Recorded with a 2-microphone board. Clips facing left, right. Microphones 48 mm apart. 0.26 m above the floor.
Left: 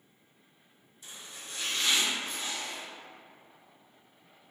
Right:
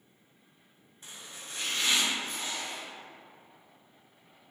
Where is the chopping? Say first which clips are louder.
Even; 40° right (ahead or behind), 1.4 m.